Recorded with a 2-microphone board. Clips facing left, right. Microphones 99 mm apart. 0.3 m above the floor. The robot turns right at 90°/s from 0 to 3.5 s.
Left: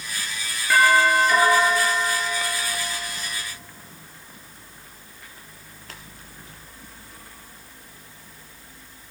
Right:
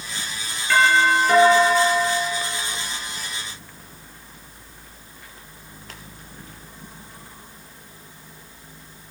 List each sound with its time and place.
0.7 s a doorbell: 170° left, 7 m; by 2.7 s 10° right, 7 m